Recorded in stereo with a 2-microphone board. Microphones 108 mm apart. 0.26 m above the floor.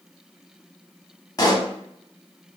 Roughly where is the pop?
Left.